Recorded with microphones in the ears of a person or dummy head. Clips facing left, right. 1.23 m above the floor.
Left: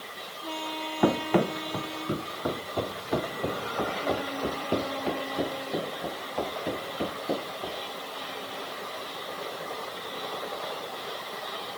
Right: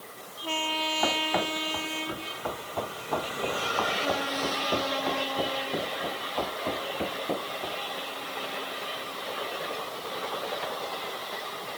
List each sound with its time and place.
1.0 s running footsteps: 55° left (ahead or behind); by 7.8 s 10° left (ahead or behind)